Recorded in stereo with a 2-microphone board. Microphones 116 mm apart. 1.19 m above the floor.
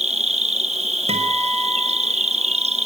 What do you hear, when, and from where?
0.0 s an insect: 65° right (ahead or behind), 0.9 m
1.1 s a guitar: 65° right (ahead or behind), 6 m